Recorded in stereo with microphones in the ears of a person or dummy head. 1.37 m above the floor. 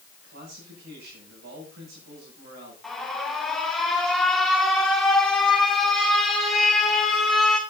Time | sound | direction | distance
0.2 | a man speaking | 65° right (ahead or behind) | 7 m
2.8 | an alarm | centre (ahead or behind) | 2.5 m